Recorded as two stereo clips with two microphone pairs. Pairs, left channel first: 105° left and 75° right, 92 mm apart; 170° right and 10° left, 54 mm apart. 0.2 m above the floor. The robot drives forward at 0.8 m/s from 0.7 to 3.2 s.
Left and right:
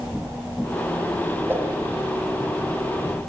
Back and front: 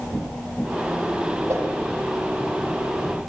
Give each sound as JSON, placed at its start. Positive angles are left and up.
{"t": 1.5, "sound": "a whoosh", "azimuth_deg": -10, "distance_m": 9.5}